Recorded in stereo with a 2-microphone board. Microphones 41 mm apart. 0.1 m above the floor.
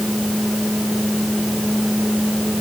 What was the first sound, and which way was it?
Only background noise.